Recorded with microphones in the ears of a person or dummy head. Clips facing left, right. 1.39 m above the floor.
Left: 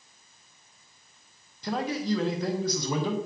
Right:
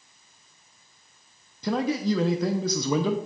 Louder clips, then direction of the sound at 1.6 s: Right 4 dB; 75° right (ahead or behind).